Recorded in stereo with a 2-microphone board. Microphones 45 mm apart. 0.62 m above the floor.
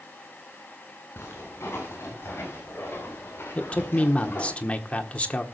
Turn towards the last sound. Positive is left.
turn(degrees=30)  # may be behind; listen again after turning